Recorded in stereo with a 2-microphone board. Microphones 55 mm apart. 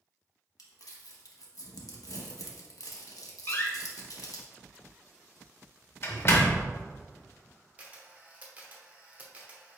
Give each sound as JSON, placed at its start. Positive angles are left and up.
{"t": 0.6, "sound": "crumpling", "side_deg": 85, "distance_m": 1.0}
{"t": 3.5, "sound": "a door slam", "side_deg": 45, "distance_m": 0.8}
{"t": 6.1, "sound": "a microwave", "side_deg": -15, "distance_m": 1.8}
{"t": 7.8, "sound": "a camera shutter", "side_deg": -25, "distance_m": 0.9}